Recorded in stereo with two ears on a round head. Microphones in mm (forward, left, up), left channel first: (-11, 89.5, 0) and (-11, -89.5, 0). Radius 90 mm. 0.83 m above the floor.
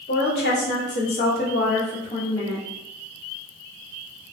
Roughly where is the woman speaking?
Left.